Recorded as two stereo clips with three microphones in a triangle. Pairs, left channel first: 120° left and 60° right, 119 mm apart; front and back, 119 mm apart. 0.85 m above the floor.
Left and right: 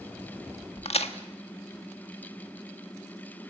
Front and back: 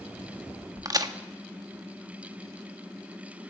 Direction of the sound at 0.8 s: 125° left.